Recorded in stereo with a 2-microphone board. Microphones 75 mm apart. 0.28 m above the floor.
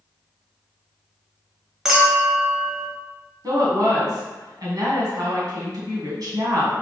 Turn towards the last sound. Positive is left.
turn(degrees=-60)  # may be behind; listen again after turning